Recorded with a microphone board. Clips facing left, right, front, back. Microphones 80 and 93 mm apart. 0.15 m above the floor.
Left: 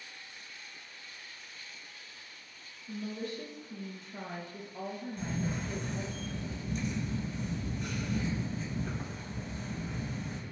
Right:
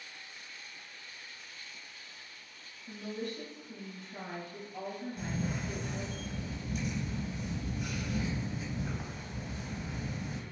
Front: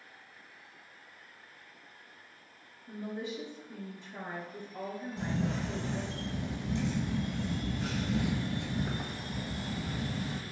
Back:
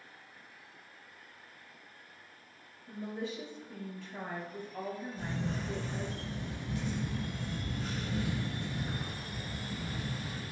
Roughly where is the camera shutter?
Ahead.